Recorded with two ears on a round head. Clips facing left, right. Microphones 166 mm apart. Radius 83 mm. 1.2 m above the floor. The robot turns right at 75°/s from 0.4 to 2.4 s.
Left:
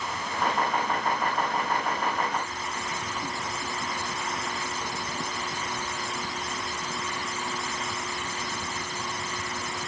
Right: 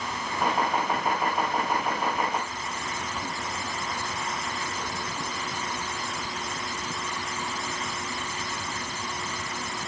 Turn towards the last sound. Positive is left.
No sound to turn to.